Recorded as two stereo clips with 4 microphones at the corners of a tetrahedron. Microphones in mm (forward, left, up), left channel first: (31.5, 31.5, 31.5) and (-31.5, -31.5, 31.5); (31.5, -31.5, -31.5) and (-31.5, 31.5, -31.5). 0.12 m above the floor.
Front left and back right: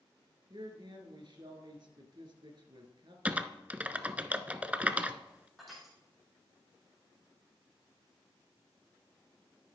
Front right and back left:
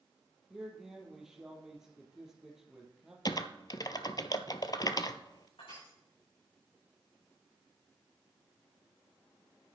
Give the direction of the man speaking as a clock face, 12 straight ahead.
5 o'clock.